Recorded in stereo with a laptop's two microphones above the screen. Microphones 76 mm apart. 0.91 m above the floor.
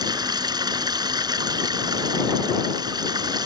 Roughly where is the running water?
Right.